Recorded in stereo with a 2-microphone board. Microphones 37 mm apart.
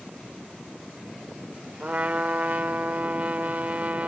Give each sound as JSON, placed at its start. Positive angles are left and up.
{"t": 1.8, "sound": "a trumpet", "side_deg": -40, "distance_m": 0.5}